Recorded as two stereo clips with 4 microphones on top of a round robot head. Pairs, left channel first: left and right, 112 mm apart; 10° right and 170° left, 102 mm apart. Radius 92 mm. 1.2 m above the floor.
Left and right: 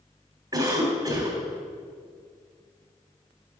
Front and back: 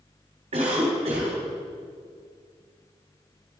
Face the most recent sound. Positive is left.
turn(degrees=-145)